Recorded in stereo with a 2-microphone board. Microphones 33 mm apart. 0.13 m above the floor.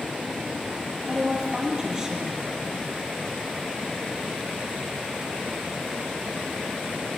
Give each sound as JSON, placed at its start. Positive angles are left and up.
{"t": 1.1, "sound": "a woman speaking", "side_deg": -20, "distance_m": 4.5}